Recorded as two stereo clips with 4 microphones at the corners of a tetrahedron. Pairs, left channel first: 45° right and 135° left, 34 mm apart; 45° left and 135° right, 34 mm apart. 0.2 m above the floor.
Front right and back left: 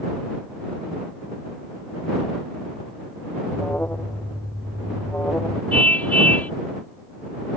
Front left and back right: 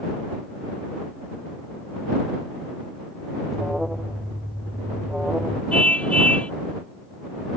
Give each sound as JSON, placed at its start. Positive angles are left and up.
{"t": 3.5, "sound": "an alarm", "azimuth_deg": -55}
{"t": 5.7, "sound": "a car horn", "azimuth_deg": -5}